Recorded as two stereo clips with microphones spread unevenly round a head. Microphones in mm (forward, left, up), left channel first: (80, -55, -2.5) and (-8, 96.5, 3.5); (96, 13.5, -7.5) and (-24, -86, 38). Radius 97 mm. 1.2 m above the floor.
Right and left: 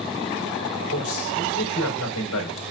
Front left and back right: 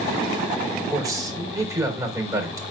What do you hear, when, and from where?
0.9 s a man speaking: 70° right, 4 m